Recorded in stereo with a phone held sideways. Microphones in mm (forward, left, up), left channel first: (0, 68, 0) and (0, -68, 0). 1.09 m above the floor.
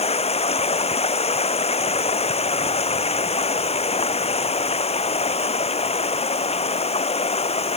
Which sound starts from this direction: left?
Running water, at 0.0 s.